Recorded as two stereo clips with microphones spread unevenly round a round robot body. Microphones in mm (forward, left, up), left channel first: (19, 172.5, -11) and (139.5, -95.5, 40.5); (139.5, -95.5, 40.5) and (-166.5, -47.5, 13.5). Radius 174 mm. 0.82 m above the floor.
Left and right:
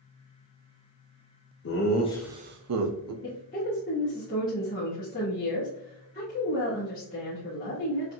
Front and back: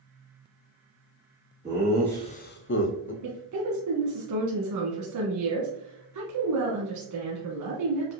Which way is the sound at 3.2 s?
170° left.